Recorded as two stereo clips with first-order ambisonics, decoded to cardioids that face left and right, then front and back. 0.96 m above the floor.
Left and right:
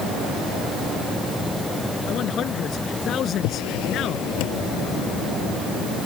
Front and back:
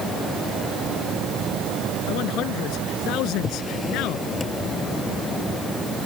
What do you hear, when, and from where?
2.1 s a man speaking: 35° left
3.4 s a drawer: 75° left